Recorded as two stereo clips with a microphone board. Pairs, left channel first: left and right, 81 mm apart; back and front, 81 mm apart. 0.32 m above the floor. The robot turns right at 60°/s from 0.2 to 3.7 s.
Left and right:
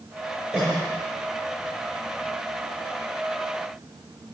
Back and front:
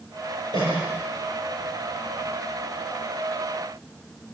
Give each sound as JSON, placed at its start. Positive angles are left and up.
{"t": 0.5, "sound": "a cough", "azimuth_deg": -10, "distance_m": 6.5}